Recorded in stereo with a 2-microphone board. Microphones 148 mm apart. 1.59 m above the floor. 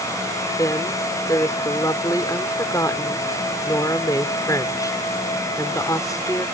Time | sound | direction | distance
0.6 | a woman speaking | 25° left (ahead or behind) | ?